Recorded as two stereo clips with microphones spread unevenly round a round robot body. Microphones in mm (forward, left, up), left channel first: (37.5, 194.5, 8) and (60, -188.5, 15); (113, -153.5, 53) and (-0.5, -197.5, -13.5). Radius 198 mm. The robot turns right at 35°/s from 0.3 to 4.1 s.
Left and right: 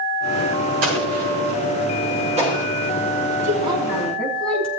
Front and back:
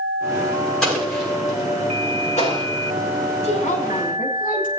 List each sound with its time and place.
0.8 s an explosion: 70° right, 7 m; by 2.7 s 5° right, 7 m
3.4 s a woman speaking: 20° right, 5 m; by 4.7 s 5° left, 5 m